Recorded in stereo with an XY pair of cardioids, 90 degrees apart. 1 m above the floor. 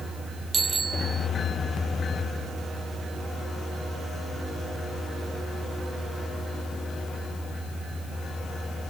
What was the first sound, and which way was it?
A bicycle bell, 40° right.